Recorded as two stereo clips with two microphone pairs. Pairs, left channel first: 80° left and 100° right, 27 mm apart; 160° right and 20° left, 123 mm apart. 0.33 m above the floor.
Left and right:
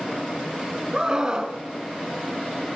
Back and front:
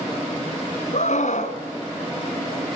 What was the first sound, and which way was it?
A scream, 165° right.